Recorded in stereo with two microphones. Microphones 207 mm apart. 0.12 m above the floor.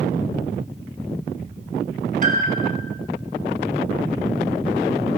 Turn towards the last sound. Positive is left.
turn(degrees=-40)  # may be behind; listen again after turning